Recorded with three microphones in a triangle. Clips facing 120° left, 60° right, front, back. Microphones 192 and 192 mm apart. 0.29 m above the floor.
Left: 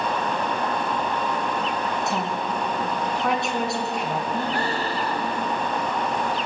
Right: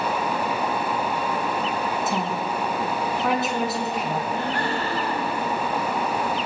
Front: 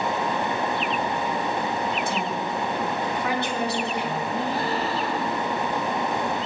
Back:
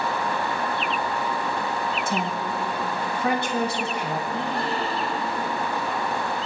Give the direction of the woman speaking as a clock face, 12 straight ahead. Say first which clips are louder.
Right 1 dB, even; 5 o'clock.